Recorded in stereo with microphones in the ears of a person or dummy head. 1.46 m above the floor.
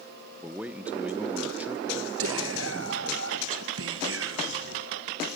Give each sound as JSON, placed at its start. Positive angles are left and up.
{"t": 0.4, "sound": "a man speaking", "side_deg": -5, "distance_m": 1.3}
{"t": 2.2, "sound": "whispering", "side_deg": -80, "distance_m": 2.0}